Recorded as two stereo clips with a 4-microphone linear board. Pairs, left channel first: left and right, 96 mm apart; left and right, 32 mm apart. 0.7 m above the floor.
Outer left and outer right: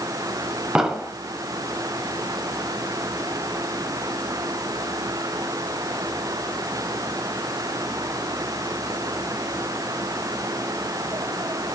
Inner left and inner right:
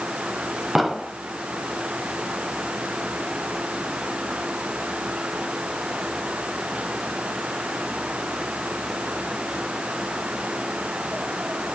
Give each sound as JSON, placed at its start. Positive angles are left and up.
{"t": 0.8, "sound": "an explosion", "side_deg": -10, "distance_m": 1.1}